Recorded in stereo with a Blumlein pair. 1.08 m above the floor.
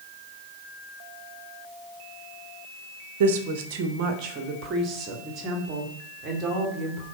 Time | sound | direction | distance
3.2 | a woman speaking | 55° right | 1.0 m